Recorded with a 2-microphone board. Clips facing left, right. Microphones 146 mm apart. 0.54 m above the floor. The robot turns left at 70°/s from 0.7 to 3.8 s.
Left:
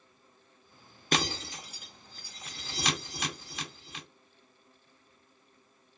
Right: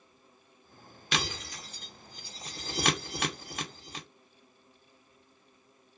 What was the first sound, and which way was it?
Breaking glass, 45° left (ahead or behind).